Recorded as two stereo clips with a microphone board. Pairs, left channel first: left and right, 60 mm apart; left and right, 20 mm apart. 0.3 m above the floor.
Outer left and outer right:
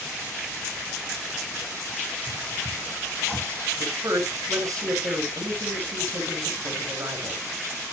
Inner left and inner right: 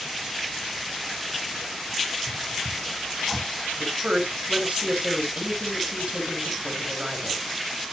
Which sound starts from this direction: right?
A man speaking, at 3.8 s.